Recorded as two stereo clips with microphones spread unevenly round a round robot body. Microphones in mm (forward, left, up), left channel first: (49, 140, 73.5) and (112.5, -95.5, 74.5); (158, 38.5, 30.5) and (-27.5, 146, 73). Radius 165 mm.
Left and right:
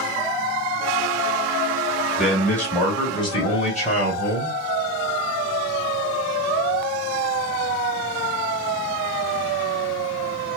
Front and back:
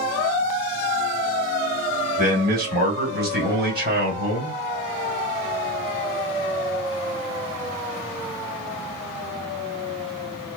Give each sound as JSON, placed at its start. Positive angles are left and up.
{"t": 2.2, "sound": "a man speaking", "azimuth_deg": -170, "distance_m": 1.7}